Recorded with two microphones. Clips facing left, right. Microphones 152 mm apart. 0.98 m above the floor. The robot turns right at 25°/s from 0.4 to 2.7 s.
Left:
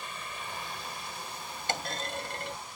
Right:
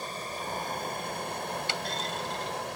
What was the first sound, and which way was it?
Running water, 140° right.